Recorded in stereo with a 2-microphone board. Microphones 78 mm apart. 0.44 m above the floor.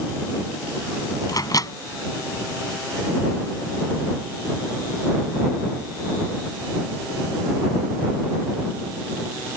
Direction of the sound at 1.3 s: 50° left (ahead or behind).